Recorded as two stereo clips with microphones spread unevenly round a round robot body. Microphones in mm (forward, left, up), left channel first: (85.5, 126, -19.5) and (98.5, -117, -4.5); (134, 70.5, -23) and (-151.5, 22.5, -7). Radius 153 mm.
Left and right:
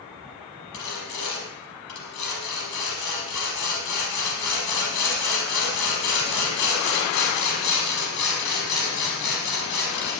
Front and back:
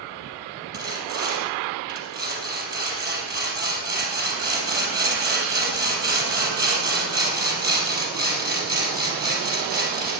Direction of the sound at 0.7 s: 130° left.